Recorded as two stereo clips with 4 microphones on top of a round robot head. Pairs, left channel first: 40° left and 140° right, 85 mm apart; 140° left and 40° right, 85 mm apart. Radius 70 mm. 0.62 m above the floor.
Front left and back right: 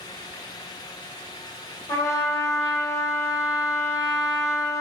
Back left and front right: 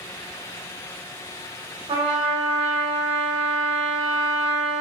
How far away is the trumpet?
About 1.5 m.